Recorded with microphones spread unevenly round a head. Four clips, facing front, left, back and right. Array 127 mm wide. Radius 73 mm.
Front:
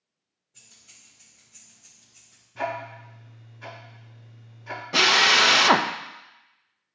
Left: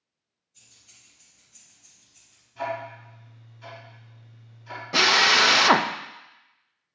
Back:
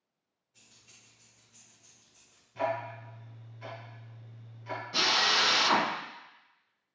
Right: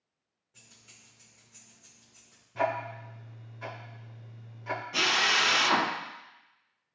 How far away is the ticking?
About 2.5 m.